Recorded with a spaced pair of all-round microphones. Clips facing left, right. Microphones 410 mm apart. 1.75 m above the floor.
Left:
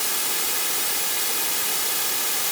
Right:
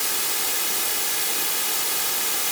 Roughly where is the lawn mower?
I don't hear a lawn mower.